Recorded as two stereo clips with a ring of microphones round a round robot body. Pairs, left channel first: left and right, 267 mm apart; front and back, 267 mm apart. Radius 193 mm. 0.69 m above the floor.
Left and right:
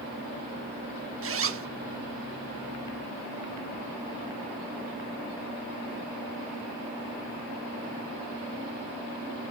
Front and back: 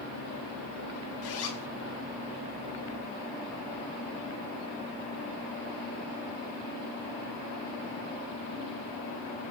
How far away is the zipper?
About 1.1 m.